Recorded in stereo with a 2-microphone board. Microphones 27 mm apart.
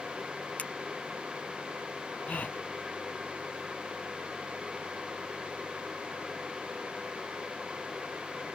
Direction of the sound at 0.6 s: 55° left (ahead or behind).